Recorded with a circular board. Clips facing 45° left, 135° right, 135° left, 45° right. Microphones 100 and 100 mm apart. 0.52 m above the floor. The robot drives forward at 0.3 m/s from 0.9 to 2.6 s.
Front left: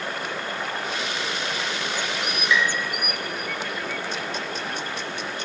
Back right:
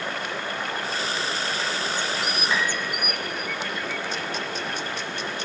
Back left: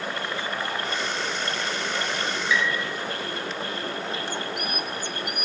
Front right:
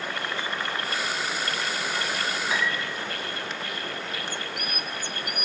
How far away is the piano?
About 1.1 m.